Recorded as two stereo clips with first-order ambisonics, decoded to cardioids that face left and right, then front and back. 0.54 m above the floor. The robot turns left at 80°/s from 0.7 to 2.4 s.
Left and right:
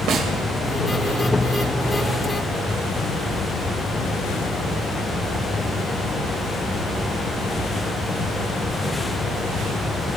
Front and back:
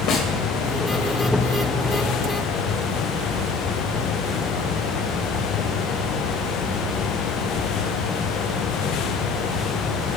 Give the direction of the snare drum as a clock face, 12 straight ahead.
2 o'clock.